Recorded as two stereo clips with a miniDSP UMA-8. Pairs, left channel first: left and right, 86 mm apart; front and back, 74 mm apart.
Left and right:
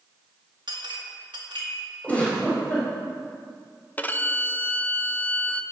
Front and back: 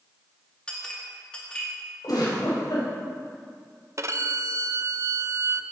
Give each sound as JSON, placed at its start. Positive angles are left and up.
{"t": 0.7, "sound": "a clink", "azimuth_deg": -75, "distance_m": 2.0}
{"t": 2.0, "sound": "a giggle", "azimuth_deg": 20, "distance_m": 4.0}
{"t": 4.0, "sound": "a violin", "azimuth_deg": 155, "distance_m": 0.6}